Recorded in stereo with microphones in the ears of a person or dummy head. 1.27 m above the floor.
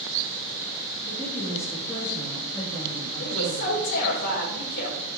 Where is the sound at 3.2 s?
60° left (ahead or behind), 4 m.